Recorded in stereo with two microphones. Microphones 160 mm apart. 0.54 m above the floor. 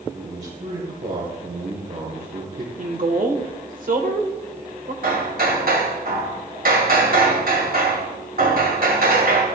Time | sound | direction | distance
0.1 | a man speaking | 65° right (ahead or behind) | 3 m
2.8 | a woman speaking | 60° right (ahead or behind) | 1.7 m
5.0 | hammering | 70° right (ahead or behind) | 2 m